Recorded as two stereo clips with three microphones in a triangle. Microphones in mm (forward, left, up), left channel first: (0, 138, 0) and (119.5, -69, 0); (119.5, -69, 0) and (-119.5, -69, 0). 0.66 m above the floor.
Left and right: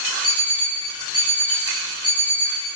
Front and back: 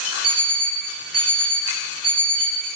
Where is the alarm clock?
170° right, 6.5 m.